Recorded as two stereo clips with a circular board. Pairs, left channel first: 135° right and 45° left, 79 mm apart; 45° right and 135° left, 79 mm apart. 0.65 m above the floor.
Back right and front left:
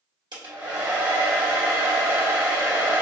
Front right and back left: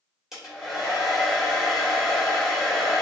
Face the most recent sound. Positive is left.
turn(degrees=50)